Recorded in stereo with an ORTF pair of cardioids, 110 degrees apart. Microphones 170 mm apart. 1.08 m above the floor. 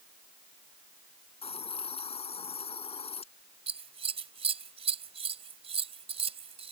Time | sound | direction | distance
1.4 | a hiss | 35° left | ?
3.7 | scissors | 35° right | ?